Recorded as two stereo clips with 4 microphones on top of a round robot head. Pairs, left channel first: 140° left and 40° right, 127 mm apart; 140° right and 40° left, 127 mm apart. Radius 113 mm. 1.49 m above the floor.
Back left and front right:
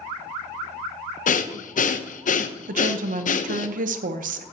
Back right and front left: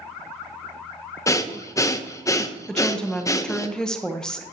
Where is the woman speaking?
55° right, 0.9 m.